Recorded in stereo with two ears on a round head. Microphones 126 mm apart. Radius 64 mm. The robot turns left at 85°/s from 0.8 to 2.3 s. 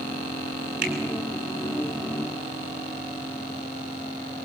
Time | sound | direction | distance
0.8 | a finger snap | 65° right (ahead or behind) | 7.5 m